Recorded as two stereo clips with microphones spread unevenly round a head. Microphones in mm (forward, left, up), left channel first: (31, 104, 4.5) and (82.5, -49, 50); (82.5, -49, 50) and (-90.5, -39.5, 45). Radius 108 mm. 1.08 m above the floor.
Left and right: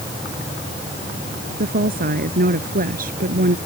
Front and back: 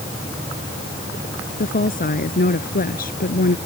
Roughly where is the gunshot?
I don't hear a gunshot.